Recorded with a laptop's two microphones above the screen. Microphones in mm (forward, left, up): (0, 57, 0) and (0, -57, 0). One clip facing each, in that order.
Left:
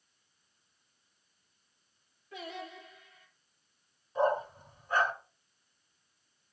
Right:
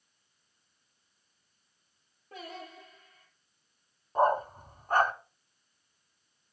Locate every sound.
2.3 s singing: 40° right (ahead or behind), 7.5 m
4.2 s a dog barking: 50° right (ahead or behind), 2.5 m